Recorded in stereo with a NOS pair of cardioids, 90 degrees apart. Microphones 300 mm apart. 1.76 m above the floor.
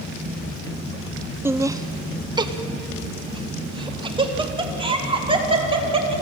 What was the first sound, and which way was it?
Laughter, 5° right.